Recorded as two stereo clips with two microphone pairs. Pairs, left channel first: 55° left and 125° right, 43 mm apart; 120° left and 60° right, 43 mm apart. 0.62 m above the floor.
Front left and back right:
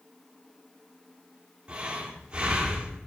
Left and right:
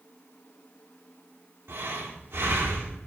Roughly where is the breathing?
Ahead right.